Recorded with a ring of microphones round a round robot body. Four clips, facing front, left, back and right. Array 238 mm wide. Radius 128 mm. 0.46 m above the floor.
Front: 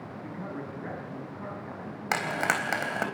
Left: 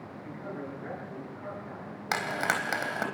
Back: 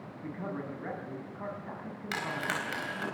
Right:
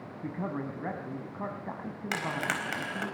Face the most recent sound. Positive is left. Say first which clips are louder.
# left 3 dB, front 6 dB
turn(degrees=25)